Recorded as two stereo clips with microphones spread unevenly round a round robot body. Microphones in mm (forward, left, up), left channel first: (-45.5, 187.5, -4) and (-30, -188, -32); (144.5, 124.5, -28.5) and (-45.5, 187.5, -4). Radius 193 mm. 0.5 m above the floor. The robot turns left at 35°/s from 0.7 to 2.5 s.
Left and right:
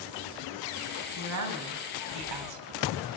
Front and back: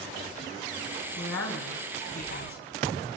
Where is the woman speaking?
30° right, 4 m; by 2.7 s 80° right, 4 m.